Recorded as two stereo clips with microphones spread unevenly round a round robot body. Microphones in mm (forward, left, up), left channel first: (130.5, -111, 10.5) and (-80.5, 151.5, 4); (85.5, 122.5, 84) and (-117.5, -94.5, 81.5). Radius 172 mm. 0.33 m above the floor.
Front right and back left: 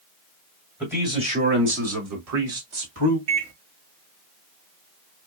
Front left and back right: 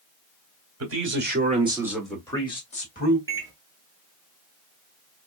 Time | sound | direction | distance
0.8 | a man speaking | 145° right | 1.7 m
3.3 | a microwave | 150° left | 1.4 m